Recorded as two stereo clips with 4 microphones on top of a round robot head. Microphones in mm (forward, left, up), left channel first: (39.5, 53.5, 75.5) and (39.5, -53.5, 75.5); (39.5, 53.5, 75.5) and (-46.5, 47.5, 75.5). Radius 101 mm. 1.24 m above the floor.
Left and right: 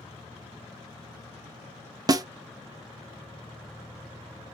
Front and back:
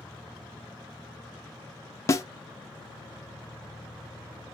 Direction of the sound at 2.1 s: 45° right.